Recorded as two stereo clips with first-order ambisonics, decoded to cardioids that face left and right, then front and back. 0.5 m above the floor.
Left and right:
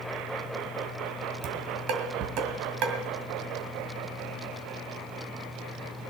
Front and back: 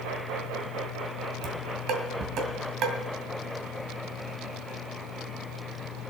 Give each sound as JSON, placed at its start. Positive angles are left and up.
{"t": 1.4, "sound": "dishes clattering", "azimuth_deg": -130, "distance_m": 2.0}